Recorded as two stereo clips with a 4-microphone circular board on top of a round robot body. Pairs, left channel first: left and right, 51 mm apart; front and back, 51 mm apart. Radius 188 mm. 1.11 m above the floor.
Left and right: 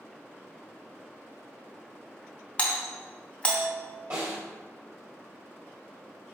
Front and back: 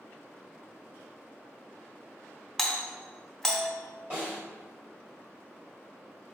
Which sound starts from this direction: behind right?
A snare drum, at 4.1 s.